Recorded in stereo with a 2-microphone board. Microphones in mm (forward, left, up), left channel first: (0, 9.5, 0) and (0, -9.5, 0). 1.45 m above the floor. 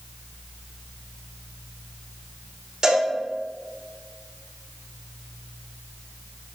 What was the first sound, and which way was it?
A cowbell, 35° right (ahead or behind).